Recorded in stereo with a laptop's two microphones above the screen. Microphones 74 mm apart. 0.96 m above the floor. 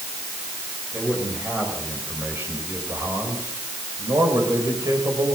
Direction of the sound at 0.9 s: 20° right (ahead or behind).